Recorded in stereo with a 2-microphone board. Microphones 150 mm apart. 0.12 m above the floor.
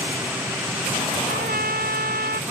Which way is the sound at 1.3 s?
85° right.